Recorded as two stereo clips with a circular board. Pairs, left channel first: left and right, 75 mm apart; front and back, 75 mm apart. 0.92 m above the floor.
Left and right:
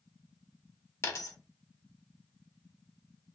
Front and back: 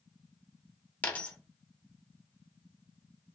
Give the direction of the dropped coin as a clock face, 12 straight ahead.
10 o'clock.